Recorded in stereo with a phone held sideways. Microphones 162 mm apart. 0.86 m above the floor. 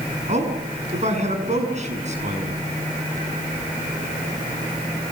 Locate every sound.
0.3 s a man speaking: 45° right (ahead or behind), 7 m